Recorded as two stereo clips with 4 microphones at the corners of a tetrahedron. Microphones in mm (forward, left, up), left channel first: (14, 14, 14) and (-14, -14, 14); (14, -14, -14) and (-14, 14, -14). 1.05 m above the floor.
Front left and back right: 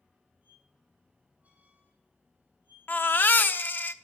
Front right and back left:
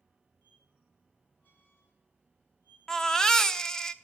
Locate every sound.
0.4 s a squeak: 85° right, 5.5 m
2.9 s a baby crying: 25° left, 0.8 m